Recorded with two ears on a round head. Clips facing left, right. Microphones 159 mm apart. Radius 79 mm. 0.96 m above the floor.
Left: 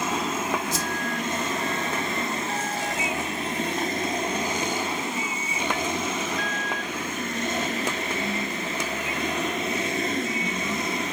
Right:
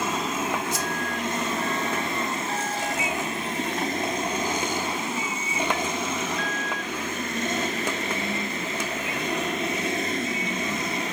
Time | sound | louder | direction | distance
0.7 | a whoosh | even | 60° left (ahead or behind) | 1.0 m